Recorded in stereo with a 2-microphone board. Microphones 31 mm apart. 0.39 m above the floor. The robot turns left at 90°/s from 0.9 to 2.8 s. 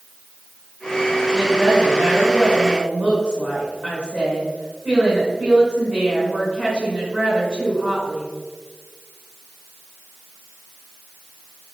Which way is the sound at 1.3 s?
30° right.